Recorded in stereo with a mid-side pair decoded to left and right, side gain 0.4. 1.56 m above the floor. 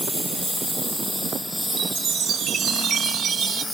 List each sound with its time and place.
0.0 s a lawn mower: straight ahead; by 3.8 s 5° left
1.7 s a chime: 65° right